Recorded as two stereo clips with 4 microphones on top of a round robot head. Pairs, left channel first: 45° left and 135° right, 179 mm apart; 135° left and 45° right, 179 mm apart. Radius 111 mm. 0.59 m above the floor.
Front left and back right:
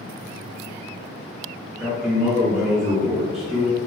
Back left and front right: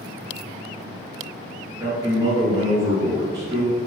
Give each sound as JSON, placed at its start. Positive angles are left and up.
{"t": 1.8, "sound": "a man speaking", "azimuth_deg": -55, "distance_m": 1.2}